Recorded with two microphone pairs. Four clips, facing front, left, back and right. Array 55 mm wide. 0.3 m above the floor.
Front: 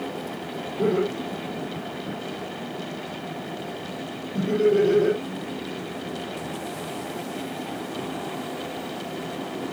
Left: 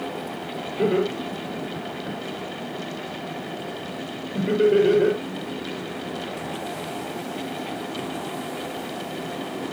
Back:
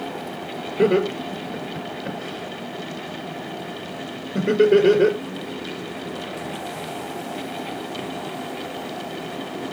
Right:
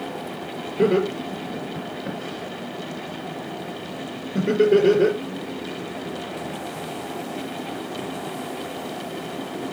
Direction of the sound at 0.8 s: 165° right.